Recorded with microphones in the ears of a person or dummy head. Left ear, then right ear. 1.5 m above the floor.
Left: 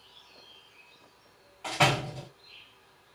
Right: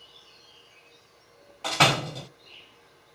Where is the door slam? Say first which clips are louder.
Right 4 dB; 30° right (ahead or behind), 1.0 m.